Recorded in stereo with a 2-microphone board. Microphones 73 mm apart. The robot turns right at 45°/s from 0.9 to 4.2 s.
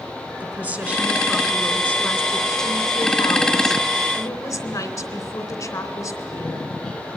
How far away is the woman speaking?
About 3 m.